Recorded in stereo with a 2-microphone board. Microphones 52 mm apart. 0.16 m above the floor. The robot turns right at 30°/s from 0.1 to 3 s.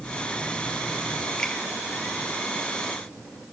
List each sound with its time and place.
1.4 s a finger snap: 15° left (ahead or behind), 3 m; by 1.6 s 10° left (ahead or behind), 3 m